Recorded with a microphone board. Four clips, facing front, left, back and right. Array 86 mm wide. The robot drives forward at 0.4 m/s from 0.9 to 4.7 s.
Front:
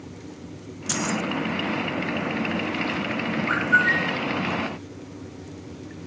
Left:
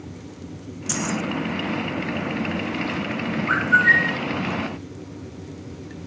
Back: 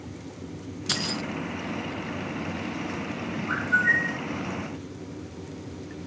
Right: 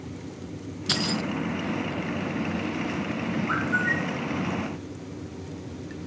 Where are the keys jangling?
120° right, 0.9 m; by 1.2 s 135° right, 0.9 m.